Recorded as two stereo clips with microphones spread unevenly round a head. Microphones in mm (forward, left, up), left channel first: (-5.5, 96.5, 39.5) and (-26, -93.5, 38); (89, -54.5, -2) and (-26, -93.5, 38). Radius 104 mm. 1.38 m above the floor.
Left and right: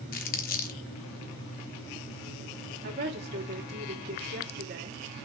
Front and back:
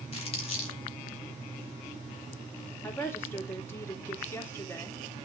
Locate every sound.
0.1 s crumpling: 75° left, 1.0 m
2.8 s a woman speaking: 55° right, 2.5 m